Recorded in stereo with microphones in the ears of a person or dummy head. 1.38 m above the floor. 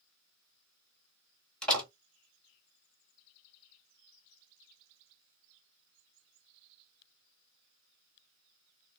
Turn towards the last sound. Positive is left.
turn(degrees=5)  # may be behind; listen again after turning